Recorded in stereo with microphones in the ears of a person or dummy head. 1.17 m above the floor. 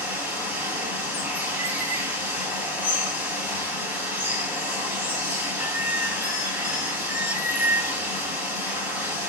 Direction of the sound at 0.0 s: 5° right (ahead or behind).